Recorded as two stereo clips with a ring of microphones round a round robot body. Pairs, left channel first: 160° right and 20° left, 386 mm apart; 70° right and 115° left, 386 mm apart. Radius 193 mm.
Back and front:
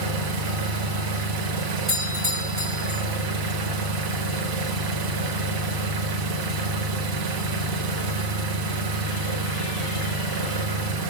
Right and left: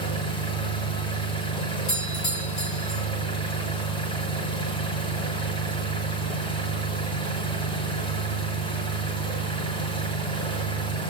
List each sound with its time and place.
0.0 s an engine running: 10° left, 1.0 m
1.9 s a doorbell: 35° right, 2.5 m